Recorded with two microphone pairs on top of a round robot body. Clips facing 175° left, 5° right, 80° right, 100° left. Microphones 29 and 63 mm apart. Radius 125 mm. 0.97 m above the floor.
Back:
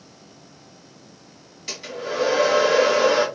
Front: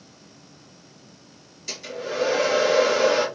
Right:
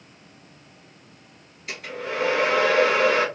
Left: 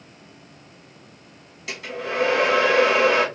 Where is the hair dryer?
110° left, 1.2 m.